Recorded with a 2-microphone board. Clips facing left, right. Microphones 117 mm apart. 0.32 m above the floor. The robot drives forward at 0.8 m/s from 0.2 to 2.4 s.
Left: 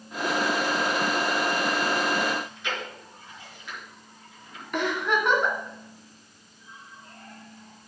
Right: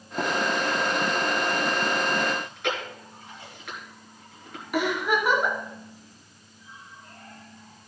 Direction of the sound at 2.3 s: 60° right (ahead or behind).